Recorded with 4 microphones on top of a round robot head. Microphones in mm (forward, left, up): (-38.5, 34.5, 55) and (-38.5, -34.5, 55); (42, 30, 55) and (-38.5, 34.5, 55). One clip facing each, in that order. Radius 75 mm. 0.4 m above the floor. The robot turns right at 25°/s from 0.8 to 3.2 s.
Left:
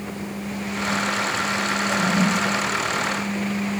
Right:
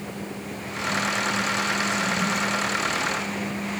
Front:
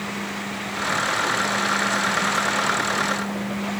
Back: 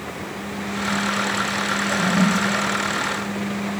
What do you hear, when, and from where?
1.9 s a toilet flushing: 135° left; by 2.7 s 155° left